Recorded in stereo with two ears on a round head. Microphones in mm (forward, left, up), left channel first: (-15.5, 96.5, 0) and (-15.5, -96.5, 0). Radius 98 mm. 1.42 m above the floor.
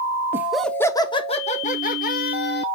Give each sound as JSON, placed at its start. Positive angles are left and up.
{"t": 0.3, "sound": "laughter", "side_deg": -10, "distance_m": 0.7}